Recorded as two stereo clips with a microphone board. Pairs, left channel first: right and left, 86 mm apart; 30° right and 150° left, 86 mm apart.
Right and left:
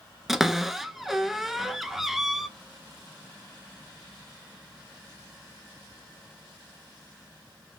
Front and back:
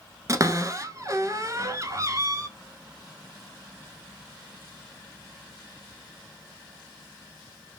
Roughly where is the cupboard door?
Behind.